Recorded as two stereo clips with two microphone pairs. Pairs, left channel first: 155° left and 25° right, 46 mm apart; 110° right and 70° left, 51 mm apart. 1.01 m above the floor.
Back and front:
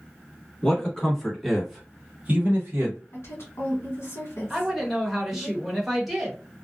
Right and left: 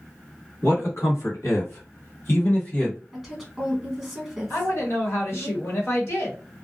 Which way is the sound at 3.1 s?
160° left.